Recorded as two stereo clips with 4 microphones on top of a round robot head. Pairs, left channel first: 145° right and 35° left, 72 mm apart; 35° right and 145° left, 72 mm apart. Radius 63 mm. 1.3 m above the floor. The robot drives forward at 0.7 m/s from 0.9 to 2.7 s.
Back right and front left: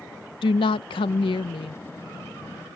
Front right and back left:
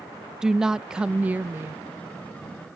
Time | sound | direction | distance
0.4 | a woman speaking | 135° right | ?